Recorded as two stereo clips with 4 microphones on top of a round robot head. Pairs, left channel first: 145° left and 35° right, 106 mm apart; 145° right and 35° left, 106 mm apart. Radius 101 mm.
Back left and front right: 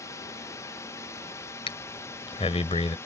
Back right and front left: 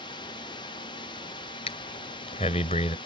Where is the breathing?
175° right.